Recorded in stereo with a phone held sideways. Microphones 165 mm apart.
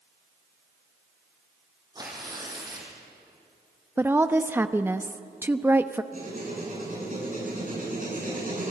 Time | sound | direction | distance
1.9 | tearing paper | 25° right (ahead or behind) | 6 m
4.0 | a woman speaking | 15° right (ahead or behind) | 0.8 m
6.1 | writing | 55° right (ahead or behind) | 9.5 m